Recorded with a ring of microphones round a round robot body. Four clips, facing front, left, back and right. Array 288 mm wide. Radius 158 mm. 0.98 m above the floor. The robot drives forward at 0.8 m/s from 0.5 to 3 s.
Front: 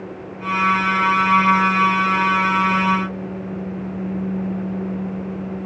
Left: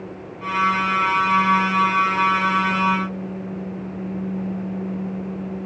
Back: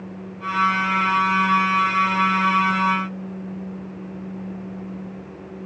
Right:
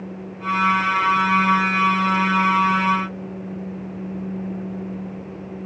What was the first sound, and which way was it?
Only background noise.